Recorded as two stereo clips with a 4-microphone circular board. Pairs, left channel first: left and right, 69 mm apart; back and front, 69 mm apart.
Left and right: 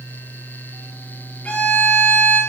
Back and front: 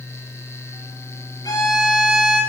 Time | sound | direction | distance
1.4 | a violin | 160° left | 5 m